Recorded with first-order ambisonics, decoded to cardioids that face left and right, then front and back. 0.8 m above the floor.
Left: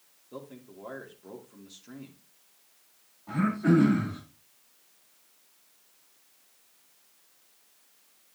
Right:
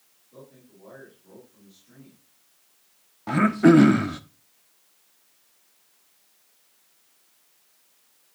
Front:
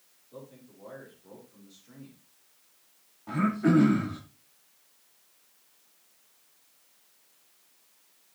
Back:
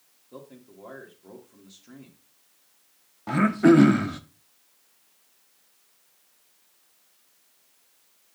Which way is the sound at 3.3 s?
125° right.